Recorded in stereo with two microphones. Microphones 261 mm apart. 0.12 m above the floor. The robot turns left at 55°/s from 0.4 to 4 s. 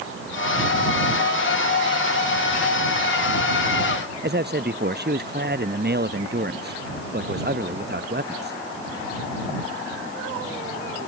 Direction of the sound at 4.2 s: 40° right (ahead or behind).